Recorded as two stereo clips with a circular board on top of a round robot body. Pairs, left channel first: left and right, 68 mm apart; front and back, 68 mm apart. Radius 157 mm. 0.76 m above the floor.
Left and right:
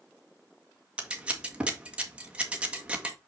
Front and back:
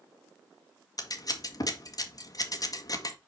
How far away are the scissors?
About 1.8 m.